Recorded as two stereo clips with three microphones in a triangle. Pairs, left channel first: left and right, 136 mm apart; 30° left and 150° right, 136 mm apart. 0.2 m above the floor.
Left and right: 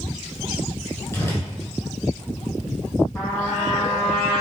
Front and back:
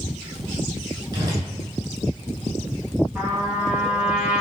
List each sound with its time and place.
1.1 s a whoosh: 155° left, 1.1 m
3.1 s a trumpet: 145° left, 1.7 m